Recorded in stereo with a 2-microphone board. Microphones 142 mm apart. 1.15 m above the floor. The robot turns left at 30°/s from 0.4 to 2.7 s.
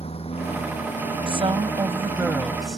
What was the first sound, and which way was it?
A lawn mower, 135° left.